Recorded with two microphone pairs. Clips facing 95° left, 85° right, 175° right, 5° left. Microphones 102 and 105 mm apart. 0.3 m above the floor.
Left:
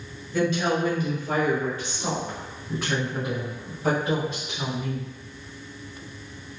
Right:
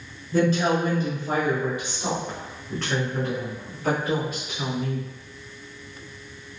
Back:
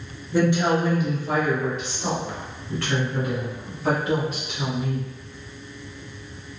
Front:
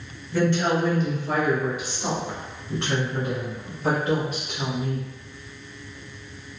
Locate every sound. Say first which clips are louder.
0.3 s a woman speaking: right 3 dB, back 2 dB; 110° right, 1.6 m; by 5.1 s 45° left, 2.5 m